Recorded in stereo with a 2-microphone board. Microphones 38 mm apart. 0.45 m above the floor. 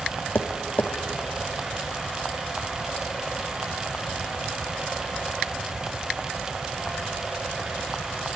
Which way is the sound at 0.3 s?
70° left (ahead or behind).